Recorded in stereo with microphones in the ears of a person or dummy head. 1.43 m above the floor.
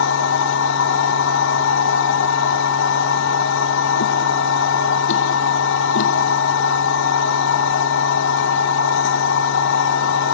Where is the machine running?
80° left, 1.4 m.